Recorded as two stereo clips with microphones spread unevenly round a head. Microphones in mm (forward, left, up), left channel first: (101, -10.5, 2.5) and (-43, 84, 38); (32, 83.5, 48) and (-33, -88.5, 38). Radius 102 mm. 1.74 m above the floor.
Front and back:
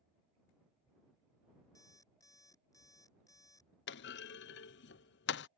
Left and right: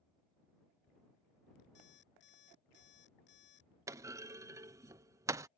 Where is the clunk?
35° right.